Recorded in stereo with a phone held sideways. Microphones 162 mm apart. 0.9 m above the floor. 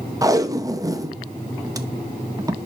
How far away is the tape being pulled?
About 0.5 m.